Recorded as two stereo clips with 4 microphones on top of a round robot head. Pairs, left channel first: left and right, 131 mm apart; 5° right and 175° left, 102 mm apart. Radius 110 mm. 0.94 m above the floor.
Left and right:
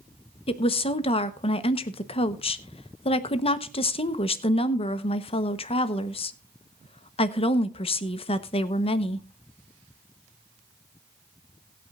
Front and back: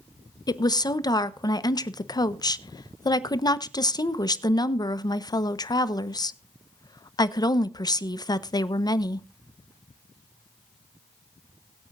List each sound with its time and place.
0.5 s a woman speaking: 45° left, 1.0 m